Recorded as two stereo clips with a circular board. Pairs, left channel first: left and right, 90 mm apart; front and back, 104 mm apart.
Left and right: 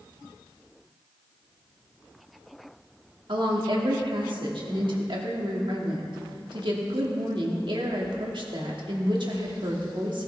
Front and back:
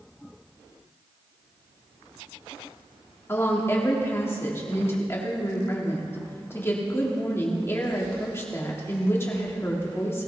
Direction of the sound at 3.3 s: 65° right.